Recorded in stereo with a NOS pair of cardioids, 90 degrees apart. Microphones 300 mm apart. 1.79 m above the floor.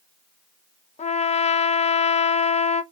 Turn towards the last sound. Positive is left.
turn(degrees=25)